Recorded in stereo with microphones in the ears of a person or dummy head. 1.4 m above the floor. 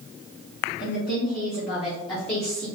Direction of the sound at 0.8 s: 55° left (ahead or behind).